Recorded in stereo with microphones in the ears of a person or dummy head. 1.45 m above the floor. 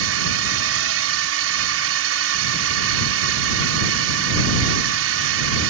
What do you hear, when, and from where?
0.0 s a drone: 70° right (ahead or behind)